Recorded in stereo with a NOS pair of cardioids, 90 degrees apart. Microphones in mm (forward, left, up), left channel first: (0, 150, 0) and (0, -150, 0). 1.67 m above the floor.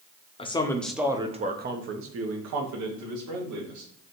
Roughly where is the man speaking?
Ahead.